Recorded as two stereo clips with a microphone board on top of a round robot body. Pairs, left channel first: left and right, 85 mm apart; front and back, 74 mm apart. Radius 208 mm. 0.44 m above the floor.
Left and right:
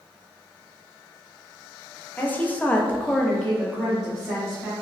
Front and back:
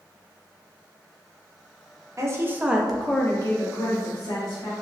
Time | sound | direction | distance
2.2 | a woman speaking | 155° left | 0.9 m